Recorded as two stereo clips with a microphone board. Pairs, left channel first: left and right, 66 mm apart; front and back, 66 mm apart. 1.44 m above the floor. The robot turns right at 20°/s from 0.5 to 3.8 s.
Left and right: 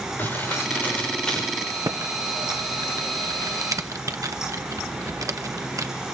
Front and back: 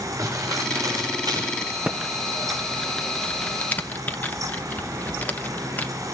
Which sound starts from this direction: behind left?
Crumpling, at 0.2 s.